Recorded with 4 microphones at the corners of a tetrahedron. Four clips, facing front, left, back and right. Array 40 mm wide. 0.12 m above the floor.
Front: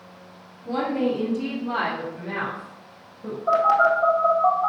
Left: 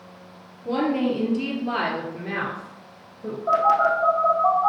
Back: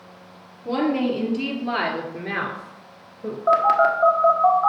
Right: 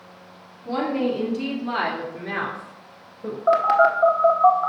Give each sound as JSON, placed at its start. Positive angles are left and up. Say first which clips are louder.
{"t": 0.7, "sound": "a woman speaking", "louder": "left 1 dB, back 2 dB", "azimuth_deg": 155, "distance_m": 2.0}
{"t": 3.5, "sound": "a phone buzzing", "louder": "right 2 dB, back 1 dB", "azimuth_deg": -130, "distance_m": 1.3}